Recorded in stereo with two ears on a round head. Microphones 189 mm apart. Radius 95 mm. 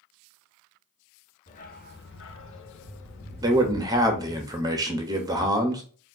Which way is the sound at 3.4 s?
15° right (ahead or behind).